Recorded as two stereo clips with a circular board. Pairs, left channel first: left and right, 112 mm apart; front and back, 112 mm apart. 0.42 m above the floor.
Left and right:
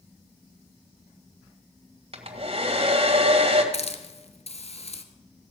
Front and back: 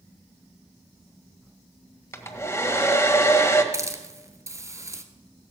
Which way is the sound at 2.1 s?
65° right.